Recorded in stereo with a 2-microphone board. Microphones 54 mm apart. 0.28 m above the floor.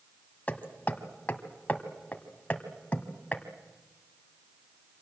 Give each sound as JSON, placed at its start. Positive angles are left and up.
{"t": 0.5, "sound": "hammering", "side_deg": 25, "distance_m": 1.7}